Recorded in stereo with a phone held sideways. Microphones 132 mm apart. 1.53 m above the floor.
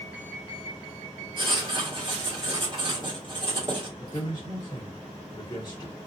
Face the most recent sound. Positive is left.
turn(degrees=30)  # may be behind; listen again after turning